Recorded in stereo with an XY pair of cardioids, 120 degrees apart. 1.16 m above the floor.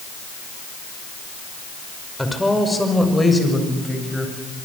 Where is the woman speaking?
5° left, 5 m; by 4.3 s 10° left, 8 m.